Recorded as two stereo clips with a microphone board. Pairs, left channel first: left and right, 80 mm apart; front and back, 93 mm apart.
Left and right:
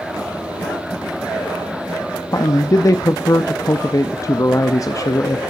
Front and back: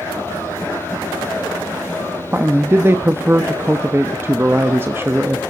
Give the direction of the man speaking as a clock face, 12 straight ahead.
8 o'clock.